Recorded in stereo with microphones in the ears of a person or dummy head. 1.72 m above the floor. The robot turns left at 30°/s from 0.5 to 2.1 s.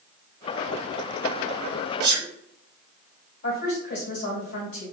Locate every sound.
2.0 s a sneeze: 30° right (ahead or behind), 1.3 m
3.4 s a woman speaking: 55° left (ahead or behind), 1.8 m